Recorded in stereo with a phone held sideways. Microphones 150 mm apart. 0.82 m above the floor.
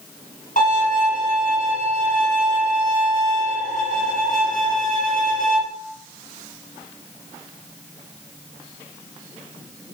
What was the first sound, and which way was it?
A violin, 55° left (ahead or behind).